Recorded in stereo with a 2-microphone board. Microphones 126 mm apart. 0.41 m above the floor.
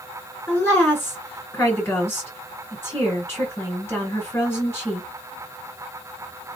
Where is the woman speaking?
20° left (ahead or behind), 1.9 m.